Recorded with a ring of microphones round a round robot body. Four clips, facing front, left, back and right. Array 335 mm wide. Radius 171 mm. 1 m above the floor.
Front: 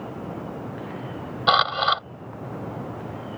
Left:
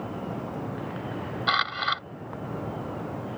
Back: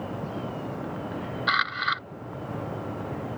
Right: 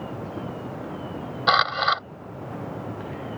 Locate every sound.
1.5 s a camera shutter: 35° right